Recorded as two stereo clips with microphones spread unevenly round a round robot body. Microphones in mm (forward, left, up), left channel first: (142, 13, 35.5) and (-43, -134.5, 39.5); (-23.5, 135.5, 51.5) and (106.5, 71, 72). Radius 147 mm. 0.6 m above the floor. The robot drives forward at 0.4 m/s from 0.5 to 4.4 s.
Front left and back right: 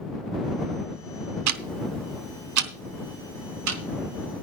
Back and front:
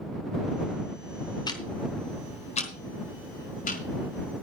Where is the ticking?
140° right, 0.8 m; by 4.4 s 165° right, 1.9 m.